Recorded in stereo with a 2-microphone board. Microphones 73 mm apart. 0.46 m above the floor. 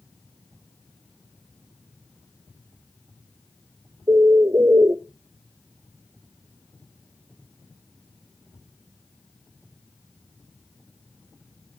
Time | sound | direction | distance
4.1 | a bird | 45° right (ahead or behind) | 0.5 m